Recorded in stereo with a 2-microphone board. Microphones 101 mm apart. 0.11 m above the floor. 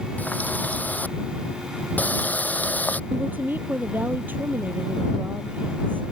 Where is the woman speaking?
20° right (ahead or behind).